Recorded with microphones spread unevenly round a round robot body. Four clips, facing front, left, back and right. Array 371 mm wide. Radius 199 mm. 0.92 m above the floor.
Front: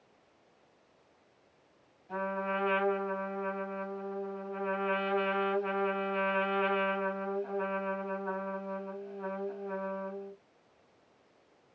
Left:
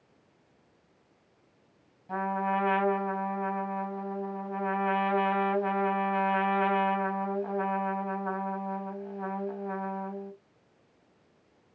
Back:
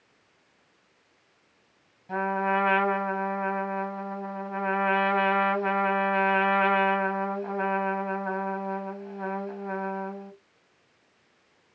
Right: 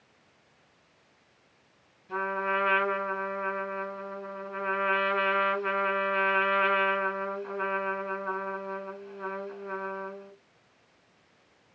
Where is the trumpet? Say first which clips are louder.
Left 1 dB, back 8 dB; 150° left, 3 m.